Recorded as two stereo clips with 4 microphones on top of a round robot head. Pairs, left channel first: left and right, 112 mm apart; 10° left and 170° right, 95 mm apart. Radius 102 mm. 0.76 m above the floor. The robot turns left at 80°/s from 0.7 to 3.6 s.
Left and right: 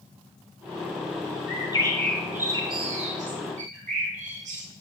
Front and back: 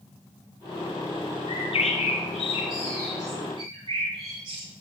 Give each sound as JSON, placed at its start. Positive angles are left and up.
{"t": 1.5, "sound": "a bird", "azimuth_deg": 55, "distance_m": 2.5}